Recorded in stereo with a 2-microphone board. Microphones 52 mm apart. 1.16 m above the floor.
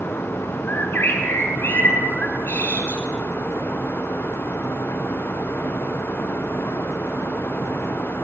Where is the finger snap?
No finger snap in this recording.